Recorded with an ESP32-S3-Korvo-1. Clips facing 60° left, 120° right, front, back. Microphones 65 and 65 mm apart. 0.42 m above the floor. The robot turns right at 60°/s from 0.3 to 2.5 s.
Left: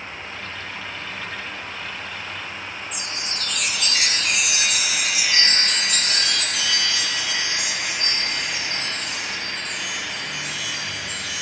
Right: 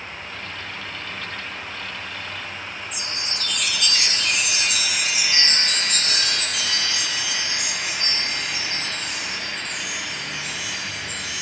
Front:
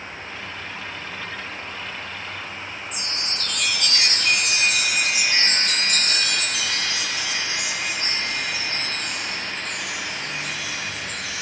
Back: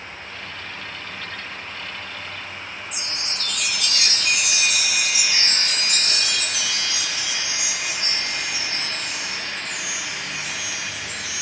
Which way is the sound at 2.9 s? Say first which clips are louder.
Even, front 1 dB; 25° right.